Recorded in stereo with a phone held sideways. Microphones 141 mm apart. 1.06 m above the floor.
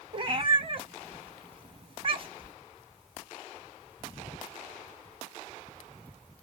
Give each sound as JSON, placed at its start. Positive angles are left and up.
{"t": 0.1, "sound": "a cat meowing", "side_deg": -40, "distance_m": 0.6}